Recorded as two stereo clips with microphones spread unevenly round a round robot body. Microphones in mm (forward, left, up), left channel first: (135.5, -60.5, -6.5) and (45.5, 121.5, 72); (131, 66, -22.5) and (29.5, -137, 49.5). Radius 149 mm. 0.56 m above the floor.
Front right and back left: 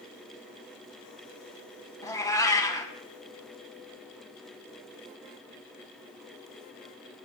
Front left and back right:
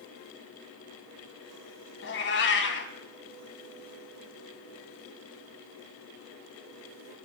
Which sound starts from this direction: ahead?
A cat meowing, at 2.0 s.